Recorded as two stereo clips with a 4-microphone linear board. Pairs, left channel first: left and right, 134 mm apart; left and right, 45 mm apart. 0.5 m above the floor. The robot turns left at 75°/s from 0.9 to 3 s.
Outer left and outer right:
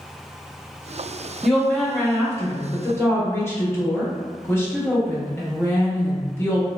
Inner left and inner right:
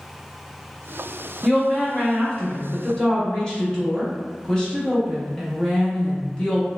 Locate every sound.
1.4 s a woman speaking: centre (ahead or behind), 0.7 m; by 6.7 s 20° left (ahead or behind), 0.7 m